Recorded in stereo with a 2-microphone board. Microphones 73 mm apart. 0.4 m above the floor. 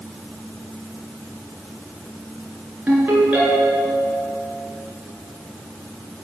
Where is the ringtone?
25° right (ahead or behind), 2.5 m.